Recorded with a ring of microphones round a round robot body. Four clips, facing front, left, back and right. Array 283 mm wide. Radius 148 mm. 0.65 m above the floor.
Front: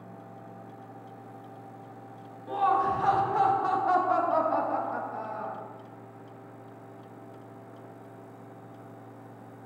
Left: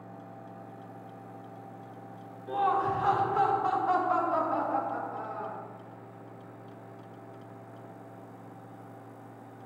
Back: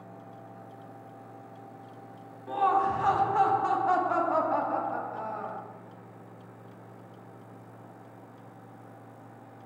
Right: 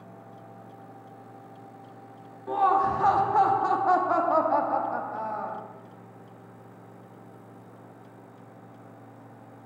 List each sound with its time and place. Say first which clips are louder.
2.5 s laughter: right 5 dB, even; 95° right, 1.1 m